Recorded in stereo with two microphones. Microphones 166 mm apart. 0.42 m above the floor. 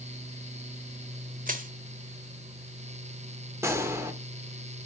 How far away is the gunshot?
About 1.3 m.